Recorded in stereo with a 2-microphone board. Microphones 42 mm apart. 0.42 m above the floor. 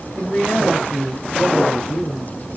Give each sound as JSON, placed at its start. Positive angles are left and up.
{"t": 0.2, "sound": "a man speaking", "side_deg": 55, "distance_m": 2.0}